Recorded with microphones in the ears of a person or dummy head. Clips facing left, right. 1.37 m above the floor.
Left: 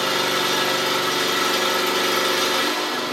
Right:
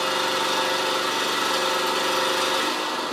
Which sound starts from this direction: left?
An engine running, at 0.0 s.